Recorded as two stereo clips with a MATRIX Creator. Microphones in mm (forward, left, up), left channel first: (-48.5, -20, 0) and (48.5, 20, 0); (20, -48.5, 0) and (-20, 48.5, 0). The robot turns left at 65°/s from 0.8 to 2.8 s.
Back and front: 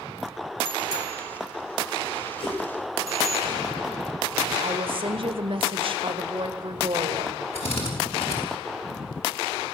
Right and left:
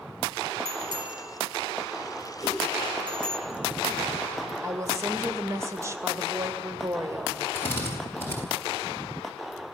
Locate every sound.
0.7 s a bicycle bell: 15° right, 3 m; by 3.4 s 145° right, 3 m
2.4 s a whoosh: 120° right, 8.5 m; by 2.6 s 135° right, 8.5 m
4.6 s a woman speaking: 50° left, 2.5 m
7.5 s a drill: 135° right, 6.5 m